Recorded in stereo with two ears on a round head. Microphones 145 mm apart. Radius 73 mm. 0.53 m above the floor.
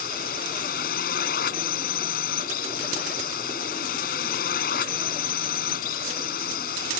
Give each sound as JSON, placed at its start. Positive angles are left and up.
{"t": 0.0, "sound": "a drone", "side_deg": 60}